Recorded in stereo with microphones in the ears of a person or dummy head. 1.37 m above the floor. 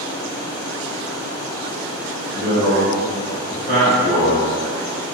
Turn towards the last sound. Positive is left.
turn(degrees=-65)  # may be behind; listen again after turning